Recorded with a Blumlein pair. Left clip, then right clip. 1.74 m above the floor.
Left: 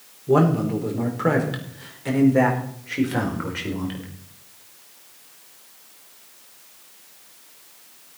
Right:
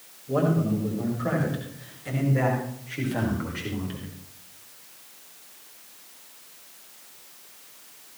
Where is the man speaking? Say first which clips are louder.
Left 6 dB; 50° left, 4.5 m; by 4.1 s 75° left, 5 m.